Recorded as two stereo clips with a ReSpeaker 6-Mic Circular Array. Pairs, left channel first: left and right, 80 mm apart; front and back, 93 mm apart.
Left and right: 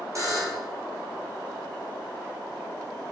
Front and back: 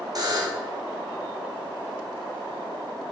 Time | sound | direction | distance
0.1 | a buzzer | 135° right | 2.5 m